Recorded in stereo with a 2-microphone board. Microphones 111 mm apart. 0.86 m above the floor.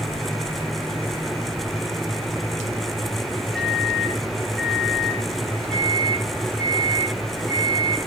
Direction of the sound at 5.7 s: 5° left (ahead or behind).